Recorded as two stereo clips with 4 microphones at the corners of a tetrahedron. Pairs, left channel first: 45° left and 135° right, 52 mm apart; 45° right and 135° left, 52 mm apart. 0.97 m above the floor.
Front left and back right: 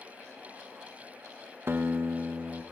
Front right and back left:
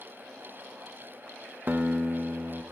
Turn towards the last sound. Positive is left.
turn(degrees=-175)